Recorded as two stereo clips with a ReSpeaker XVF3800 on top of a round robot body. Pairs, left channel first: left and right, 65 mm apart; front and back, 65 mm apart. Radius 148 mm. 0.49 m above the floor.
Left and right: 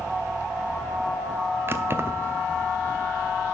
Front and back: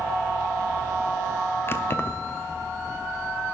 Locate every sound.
1.7 s keys jangling: 45° right, 0.9 m